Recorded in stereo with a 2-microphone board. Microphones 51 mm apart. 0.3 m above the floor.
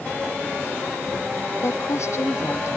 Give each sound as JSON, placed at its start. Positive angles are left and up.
{"t": 1.6, "sound": "a woman speaking", "side_deg": 70}